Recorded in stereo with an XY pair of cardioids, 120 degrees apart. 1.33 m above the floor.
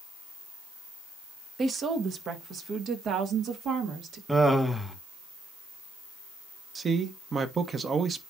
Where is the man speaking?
35° right, 1.3 m.